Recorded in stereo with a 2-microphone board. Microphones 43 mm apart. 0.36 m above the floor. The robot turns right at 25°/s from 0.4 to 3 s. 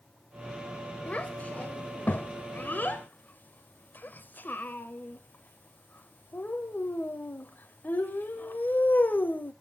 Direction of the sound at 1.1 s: 35° left (ahead or behind).